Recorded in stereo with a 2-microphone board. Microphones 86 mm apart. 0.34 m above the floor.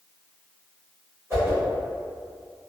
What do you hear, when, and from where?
1.3 s a whoosh: 30° right (ahead or behind), 1.3 m